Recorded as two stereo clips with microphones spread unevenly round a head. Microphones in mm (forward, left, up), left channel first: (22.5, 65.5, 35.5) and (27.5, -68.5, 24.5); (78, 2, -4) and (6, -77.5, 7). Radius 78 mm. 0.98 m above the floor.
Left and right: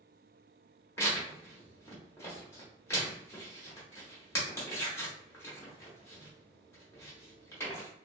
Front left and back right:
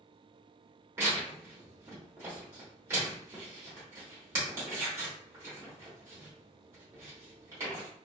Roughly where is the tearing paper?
Behind.